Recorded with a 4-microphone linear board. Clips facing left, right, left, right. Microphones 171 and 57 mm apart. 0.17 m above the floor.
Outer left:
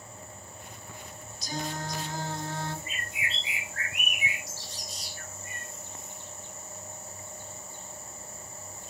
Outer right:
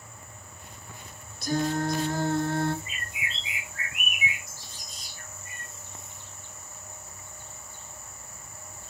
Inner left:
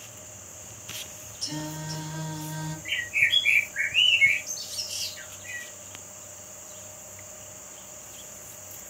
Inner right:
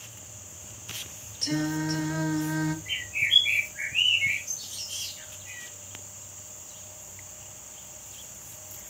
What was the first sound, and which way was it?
Singing, 60° right (ahead or behind).